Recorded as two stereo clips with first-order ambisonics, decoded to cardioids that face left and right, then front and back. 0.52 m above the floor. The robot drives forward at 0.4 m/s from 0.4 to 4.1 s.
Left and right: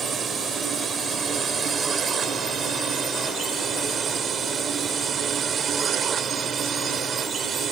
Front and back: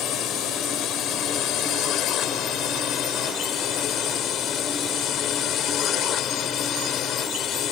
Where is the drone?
25° right; by 7.7 s 35° right.